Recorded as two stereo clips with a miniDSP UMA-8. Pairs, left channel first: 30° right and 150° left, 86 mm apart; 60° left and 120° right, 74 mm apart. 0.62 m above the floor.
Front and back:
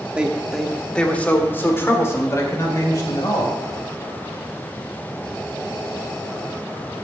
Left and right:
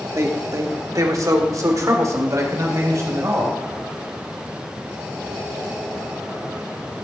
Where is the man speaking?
135° right, 1.3 m; by 3.5 s 75° right, 3 m.